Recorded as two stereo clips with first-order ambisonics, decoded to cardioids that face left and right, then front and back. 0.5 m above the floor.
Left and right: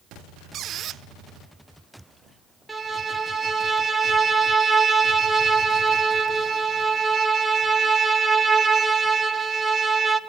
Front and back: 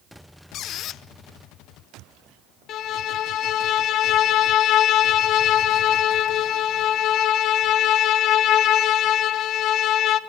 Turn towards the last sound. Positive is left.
turn(degrees=-5)